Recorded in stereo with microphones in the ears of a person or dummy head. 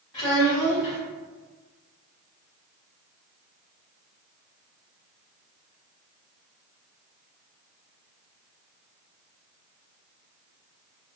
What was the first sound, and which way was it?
A child speaking, 20° left (ahead or behind).